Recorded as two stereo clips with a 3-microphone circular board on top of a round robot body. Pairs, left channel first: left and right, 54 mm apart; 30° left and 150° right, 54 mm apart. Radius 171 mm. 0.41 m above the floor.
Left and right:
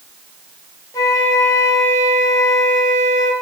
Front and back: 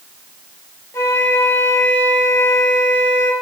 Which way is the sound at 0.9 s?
75° left.